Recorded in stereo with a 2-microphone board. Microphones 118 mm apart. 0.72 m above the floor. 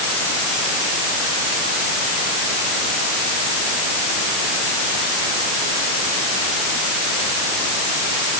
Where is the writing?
No writing in this recording.